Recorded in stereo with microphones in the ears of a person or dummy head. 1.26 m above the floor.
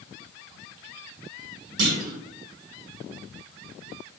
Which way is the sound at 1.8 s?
30° right (ahead or behind).